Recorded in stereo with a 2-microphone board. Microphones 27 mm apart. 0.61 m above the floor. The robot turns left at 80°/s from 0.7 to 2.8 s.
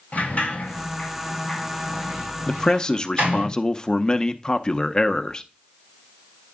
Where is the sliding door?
65° left (ahead or behind), 4.5 m; by 3.5 s 75° right (ahead or behind), 4.5 m.